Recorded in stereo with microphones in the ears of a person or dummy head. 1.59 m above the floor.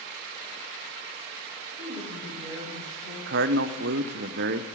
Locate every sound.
1.8 s a woman speaking: 20° right (ahead or behind), 9.5 m
3.3 s a man speaking: 55° right (ahead or behind), 0.9 m